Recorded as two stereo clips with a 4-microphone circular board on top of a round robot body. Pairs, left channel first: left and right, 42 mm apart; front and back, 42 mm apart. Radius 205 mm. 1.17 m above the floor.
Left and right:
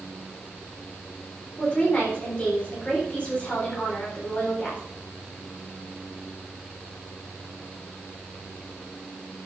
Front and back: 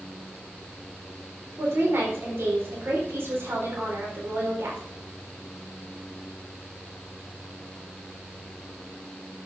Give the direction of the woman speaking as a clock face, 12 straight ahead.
7 o'clock.